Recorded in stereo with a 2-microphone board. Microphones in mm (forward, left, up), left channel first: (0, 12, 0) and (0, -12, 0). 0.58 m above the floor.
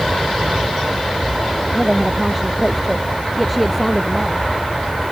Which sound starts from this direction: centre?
A woman speaking, at 1.7 s.